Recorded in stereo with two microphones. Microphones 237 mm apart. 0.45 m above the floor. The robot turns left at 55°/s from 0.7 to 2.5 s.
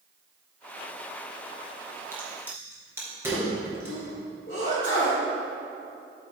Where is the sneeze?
55° left (ahead or behind), 2 m.